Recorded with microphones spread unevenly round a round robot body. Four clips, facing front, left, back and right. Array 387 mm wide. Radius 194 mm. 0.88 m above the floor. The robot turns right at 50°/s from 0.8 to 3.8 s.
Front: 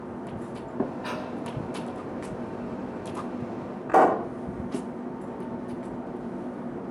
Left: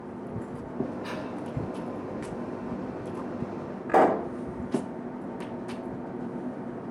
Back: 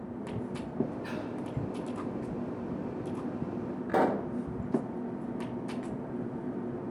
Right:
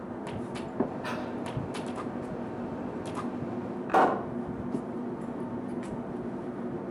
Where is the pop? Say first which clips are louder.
Left 3 dB, front 8 dB; 65° left, 0.6 m.